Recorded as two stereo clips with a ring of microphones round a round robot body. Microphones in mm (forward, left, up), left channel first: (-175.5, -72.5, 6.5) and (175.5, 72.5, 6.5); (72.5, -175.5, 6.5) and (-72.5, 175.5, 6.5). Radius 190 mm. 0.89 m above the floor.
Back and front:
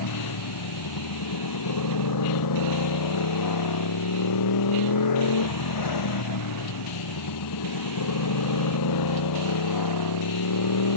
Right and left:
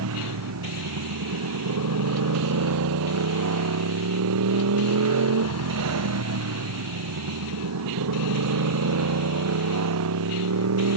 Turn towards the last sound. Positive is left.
turn(degrees=160)